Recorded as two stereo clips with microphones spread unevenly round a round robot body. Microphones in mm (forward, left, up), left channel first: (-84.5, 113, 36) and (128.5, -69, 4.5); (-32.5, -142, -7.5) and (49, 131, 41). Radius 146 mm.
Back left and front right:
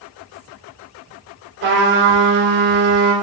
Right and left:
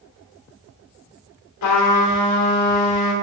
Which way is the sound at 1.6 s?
90° right.